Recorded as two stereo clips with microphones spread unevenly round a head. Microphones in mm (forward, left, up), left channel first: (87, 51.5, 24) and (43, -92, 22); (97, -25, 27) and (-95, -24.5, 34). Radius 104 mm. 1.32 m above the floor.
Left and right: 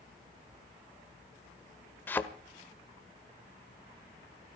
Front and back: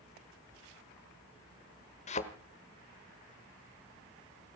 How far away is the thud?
About 1.1 m.